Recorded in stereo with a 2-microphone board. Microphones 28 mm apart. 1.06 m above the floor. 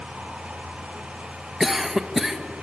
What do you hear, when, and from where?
1.6 s a cough: 10° right (ahead or behind), 1.5 m